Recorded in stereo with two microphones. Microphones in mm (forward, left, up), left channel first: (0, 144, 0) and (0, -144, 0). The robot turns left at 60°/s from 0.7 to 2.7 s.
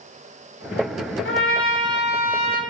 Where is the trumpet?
105° left, 0.6 m; by 2.6 s 25° left, 0.6 m.